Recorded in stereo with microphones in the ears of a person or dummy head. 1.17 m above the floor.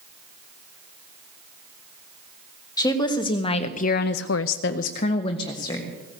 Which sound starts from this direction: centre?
A woman speaking, at 2.8 s.